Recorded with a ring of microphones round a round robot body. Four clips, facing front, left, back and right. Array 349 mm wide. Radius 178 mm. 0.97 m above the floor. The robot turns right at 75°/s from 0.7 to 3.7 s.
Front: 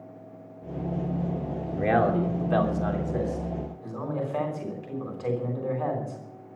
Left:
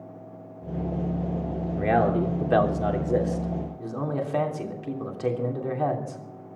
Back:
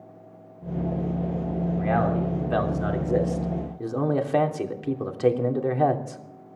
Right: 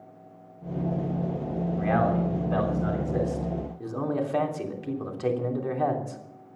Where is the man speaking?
35° left, 3 m; by 6.2 s straight behind, 3 m.